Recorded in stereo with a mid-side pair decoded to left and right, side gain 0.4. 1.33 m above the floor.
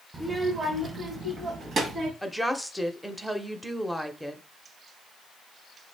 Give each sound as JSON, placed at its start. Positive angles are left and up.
{"t": 0.1, "sound": "a child speaking", "azimuth_deg": -20, "distance_m": 0.8}
{"t": 2.2, "sound": "a woman speaking", "azimuth_deg": -5, "distance_m": 0.8}